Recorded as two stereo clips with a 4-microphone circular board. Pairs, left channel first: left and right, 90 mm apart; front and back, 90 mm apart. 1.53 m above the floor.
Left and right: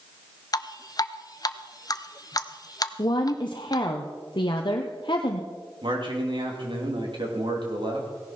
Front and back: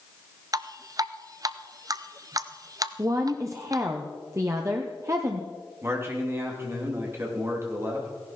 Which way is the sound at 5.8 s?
120° right.